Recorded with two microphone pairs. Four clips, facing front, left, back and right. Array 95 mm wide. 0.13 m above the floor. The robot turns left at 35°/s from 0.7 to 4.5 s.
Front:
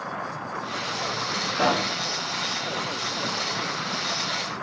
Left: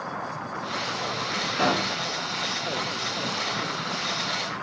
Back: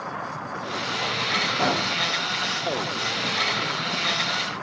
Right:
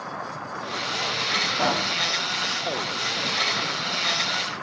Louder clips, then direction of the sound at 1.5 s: Left 1 dB, front 3 dB; 70° left.